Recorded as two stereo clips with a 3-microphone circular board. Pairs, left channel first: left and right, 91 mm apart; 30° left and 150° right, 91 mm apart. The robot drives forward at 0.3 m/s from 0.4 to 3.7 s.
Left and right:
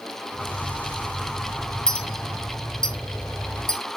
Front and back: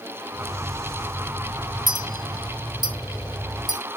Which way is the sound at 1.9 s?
170° left.